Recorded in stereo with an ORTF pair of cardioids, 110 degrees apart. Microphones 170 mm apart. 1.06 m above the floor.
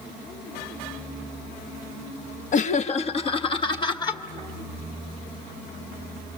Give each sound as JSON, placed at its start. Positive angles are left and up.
{"t": 2.5, "sound": "laughter", "azimuth_deg": 50, "distance_m": 0.9}